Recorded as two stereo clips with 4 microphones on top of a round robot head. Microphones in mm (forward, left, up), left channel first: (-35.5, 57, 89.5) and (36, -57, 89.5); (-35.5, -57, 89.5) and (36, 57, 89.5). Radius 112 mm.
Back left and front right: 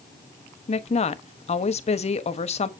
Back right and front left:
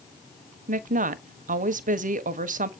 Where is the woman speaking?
80° left, 1.2 m.